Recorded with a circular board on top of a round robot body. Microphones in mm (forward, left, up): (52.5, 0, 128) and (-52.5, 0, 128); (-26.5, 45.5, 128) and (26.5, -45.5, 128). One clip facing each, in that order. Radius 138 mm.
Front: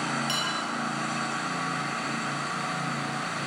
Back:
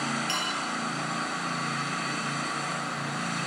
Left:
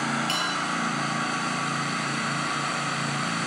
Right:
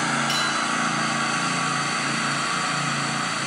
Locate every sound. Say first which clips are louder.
0.3 s dishes clattering: front 1 dB, right 3 dB; 75° left, 9 m